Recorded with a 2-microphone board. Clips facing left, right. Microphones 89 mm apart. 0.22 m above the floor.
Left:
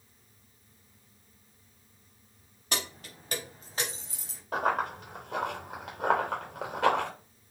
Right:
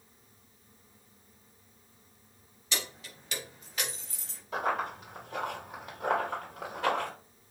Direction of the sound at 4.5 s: 55° left (ahead or behind).